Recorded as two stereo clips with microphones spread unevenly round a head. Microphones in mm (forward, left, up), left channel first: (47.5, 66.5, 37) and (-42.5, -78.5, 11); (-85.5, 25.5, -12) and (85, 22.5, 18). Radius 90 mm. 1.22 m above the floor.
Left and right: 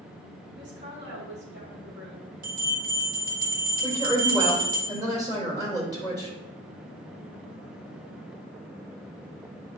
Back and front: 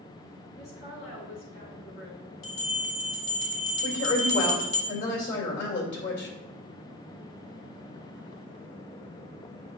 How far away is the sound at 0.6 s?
About 3 m.